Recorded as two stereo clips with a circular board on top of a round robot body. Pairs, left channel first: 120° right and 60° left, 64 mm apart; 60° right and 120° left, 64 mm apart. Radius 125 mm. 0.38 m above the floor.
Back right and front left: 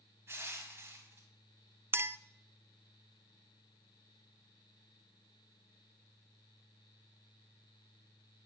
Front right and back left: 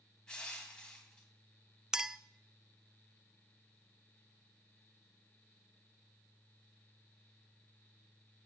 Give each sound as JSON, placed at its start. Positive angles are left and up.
{"t": 0.3, "sound": "crushing", "azimuth_deg": 20, "distance_m": 2.0}
{"t": 1.9, "sound": "a clink", "azimuth_deg": 45, "distance_m": 0.6}